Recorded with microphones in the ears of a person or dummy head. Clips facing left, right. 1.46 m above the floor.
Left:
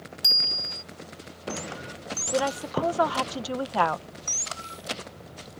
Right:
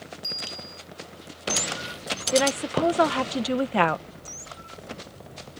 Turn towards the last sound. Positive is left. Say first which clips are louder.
# right 4 dB
turn(degrees=-30)  # may be behind; listen again after turning